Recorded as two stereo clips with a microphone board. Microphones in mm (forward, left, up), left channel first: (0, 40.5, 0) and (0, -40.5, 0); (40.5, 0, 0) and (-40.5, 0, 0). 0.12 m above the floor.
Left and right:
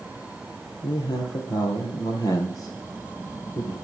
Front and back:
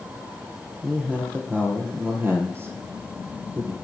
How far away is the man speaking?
About 3.5 m.